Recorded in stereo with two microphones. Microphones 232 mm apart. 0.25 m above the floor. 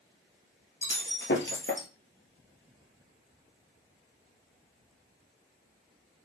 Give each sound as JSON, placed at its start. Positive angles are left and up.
{"t": 0.8, "sound": "breaking glass", "side_deg": 55, "distance_m": 1.2}